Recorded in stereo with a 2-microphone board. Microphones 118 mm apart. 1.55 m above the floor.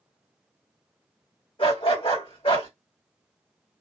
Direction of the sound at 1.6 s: 50° left (ahead or behind).